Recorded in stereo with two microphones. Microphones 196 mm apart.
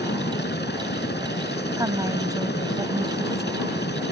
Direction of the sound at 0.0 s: 60° left (ahead or behind).